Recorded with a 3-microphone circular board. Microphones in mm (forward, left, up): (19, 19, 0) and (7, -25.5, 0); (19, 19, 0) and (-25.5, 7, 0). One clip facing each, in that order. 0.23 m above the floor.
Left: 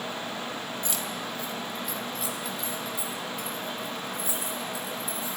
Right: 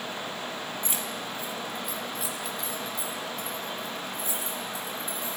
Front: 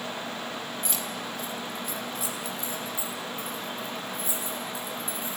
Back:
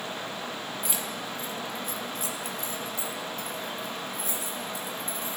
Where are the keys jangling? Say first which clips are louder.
Left 1 dB, even; 100° right, 0.8 m; by 5.4 s 155° left, 3 m.